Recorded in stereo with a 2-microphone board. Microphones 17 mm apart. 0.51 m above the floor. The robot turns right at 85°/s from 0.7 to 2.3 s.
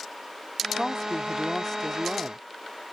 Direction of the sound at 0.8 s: 55° left.